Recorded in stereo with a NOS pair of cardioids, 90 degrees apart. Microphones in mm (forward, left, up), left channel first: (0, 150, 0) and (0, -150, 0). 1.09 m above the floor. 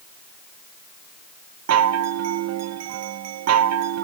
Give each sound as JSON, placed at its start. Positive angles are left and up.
{"t": 1.7, "sound": "a chime", "azimuth_deg": -60, "distance_m": 0.8}